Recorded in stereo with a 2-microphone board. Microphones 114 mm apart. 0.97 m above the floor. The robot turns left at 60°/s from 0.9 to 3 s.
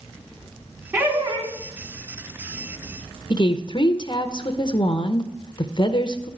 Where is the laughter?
10° right, 2.5 m; by 1.5 s 45° right, 2.5 m.